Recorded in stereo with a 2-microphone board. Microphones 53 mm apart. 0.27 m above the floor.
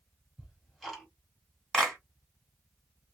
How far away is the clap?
About 2 m.